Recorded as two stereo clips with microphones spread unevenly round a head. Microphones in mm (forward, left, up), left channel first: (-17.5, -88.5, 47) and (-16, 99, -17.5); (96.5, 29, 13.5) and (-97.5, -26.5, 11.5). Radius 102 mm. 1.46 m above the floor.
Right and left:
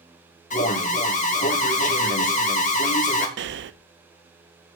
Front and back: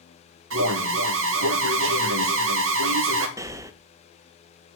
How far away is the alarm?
About 2 m.